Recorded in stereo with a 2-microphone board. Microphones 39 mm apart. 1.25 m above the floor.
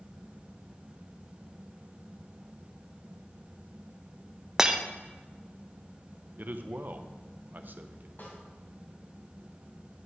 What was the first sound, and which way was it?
Breaking glass, 10° right (ahead or behind).